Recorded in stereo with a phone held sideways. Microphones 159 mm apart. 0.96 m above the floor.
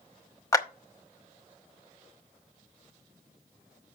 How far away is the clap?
About 1.0 m.